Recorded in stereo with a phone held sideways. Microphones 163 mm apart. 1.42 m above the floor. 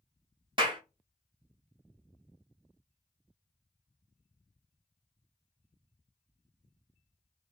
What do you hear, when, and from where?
0.6 s a clap: 30° right (ahead or behind), 1.0 m